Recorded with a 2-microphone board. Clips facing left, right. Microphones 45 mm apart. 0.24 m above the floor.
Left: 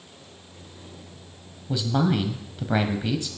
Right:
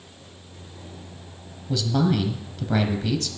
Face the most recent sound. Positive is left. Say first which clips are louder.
# right 1 dB
turn(degrees=15)  # may be behind; listen again after turning